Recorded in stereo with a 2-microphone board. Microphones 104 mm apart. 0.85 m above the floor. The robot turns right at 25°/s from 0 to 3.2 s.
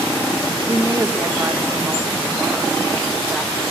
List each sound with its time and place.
0.7 s a woman speaking: 55° right, 0.7 m; by 3.5 s 10° left, 0.7 m